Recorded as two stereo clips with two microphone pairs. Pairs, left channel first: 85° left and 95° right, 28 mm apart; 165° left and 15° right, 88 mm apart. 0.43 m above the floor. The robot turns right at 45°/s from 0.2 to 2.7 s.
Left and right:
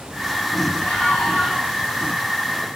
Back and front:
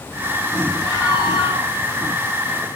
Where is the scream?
105° left, 8.5 m; by 1.7 s 145° left, 8.5 m.